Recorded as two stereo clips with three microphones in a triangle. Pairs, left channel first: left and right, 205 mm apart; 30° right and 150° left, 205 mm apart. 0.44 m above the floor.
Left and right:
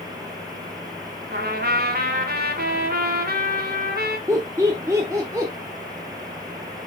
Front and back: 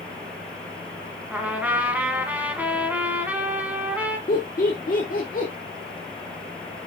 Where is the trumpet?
125° right, 1.2 m.